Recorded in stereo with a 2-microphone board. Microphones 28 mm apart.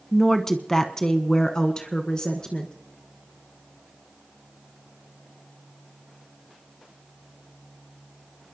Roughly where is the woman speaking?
Centre.